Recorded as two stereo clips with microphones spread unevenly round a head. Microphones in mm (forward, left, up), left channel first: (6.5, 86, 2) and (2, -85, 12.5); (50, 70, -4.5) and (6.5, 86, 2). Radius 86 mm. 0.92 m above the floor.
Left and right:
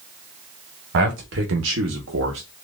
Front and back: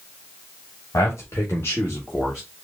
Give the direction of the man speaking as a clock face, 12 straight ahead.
2 o'clock.